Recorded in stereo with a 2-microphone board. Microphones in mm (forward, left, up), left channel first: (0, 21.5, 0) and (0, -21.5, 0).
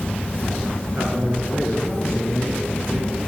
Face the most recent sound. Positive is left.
turn(degrees=-70)  # may be behind; listen again after turning